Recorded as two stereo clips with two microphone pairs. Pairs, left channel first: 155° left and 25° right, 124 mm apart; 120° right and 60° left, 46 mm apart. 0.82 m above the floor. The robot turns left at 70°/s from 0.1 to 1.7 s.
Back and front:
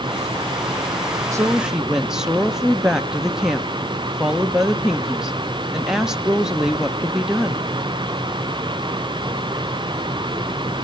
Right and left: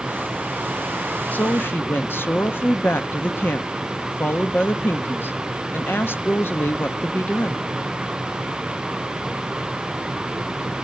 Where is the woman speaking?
80° right, 0.9 m; by 7.7 s 110° right, 0.9 m.